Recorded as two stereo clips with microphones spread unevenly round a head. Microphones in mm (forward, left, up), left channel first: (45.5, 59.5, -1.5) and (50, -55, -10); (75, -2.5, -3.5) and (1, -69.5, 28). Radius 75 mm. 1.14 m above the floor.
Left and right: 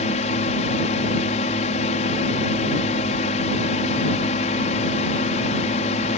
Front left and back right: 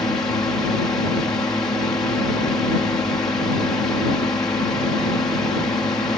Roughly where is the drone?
Behind left.